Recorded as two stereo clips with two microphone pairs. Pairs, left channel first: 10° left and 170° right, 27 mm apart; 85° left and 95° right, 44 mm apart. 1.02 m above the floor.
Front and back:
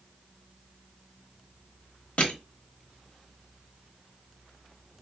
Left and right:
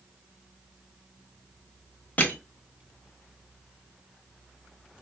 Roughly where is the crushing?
Ahead left.